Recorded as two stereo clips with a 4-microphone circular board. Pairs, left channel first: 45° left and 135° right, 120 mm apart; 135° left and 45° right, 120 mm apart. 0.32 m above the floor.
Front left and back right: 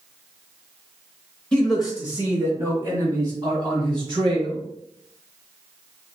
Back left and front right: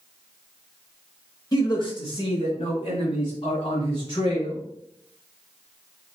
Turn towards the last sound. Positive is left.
turn(degrees=180)